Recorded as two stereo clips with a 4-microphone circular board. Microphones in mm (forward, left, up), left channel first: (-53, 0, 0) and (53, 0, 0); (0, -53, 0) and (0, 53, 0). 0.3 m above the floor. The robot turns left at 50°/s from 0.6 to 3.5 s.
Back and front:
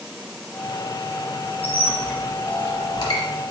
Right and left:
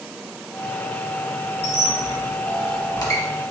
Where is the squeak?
70° right, 1.1 m; by 3.2 s 150° right, 1.1 m.